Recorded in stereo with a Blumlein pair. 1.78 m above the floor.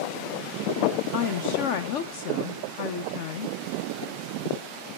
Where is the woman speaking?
45° left, 0.6 m.